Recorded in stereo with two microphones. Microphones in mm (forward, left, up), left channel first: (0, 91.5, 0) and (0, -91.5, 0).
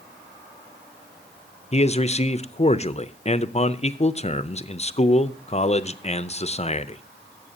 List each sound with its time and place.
1.7 s a man speaking: 35° left (ahead or behind), 0.5 m